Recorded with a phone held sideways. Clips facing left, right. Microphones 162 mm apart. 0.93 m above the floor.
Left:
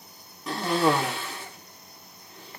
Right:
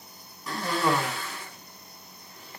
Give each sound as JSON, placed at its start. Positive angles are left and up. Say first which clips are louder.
{"t": 0.5, "sound": "a cough", "louder": "left 3 dB", "side_deg": 25, "distance_m": 0.9}